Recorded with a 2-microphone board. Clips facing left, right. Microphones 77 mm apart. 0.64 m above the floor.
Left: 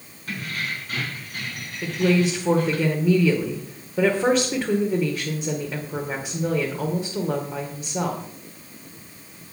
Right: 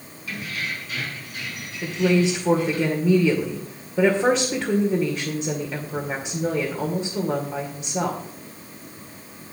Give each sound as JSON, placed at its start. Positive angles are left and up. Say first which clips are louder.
{"t": 0.3, "sound": "keys jangling", "louder": "left 1 dB", "side_deg": 50, "distance_m": 4.0}
{"t": 1.8, "sound": "a woman speaking", "louder": "right 1 dB", "side_deg": 0, "distance_m": 2.0}